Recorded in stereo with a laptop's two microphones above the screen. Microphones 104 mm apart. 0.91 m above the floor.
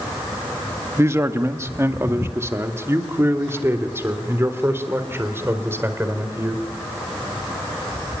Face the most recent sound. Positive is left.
turn(degrees=-25)  # may be behind; listen again after turning